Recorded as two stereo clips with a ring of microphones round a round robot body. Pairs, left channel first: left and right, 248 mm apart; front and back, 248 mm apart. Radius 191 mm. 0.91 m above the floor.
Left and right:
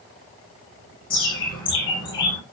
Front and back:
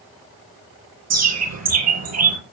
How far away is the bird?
About 6.5 m.